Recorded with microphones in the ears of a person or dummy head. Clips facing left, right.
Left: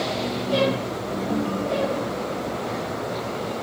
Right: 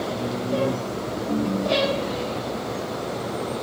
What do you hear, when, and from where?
1.3 s a ringtone: 5° right (ahead or behind), 1.8 m